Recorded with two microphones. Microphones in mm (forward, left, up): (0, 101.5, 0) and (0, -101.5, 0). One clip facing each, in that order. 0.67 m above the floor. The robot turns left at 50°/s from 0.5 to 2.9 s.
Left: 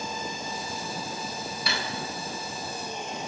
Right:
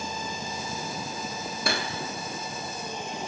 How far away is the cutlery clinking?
About 0.7 m.